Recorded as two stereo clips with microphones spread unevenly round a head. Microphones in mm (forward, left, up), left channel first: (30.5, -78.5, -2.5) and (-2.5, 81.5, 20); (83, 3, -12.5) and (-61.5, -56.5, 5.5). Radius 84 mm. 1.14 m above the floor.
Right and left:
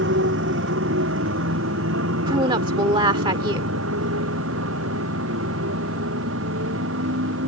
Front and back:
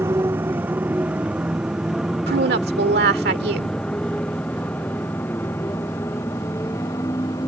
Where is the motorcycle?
125° left; by 7.5 s 95° left.